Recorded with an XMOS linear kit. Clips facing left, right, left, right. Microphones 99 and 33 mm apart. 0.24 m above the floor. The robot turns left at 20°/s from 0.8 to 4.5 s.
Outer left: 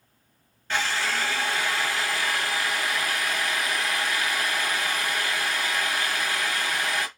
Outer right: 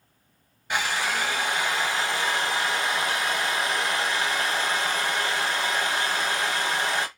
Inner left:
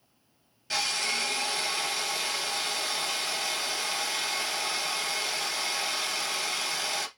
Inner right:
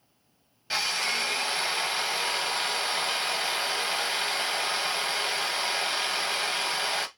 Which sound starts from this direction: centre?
A drill, at 0.7 s.